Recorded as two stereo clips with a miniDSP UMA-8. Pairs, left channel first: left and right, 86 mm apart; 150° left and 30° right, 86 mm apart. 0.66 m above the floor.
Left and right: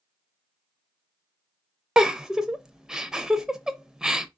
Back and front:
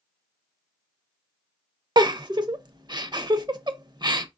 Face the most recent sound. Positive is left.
turn(degrees=-5)